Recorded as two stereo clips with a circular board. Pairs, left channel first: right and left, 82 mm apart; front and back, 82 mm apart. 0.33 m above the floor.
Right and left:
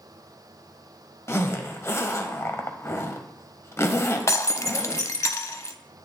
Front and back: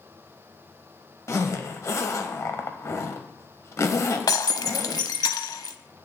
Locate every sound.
1.3 s a zipper: 45° right, 0.8 m
4.3 s breaking glass: 40° right, 0.5 m